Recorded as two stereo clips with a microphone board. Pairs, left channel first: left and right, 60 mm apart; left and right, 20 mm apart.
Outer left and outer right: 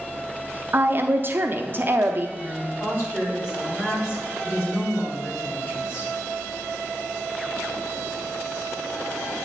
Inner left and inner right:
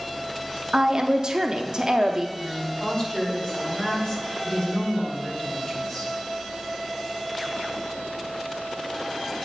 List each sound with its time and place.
0.7 s a woman speaking: 40° right (ahead or behind), 0.6 m
2.4 s a woman speaking: 45° left (ahead or behind), 4 m